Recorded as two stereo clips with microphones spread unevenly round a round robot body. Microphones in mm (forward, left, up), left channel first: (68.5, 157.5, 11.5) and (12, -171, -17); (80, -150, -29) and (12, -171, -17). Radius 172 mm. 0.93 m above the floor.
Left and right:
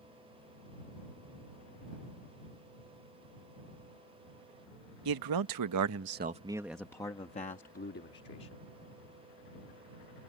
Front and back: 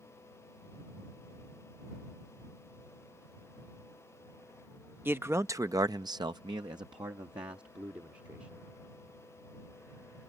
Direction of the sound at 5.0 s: 100° right.